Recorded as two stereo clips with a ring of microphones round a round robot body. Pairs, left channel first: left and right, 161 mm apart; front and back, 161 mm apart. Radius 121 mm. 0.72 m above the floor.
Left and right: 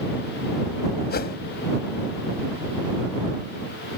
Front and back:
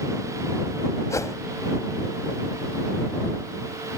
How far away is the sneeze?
No sneeze in this recording.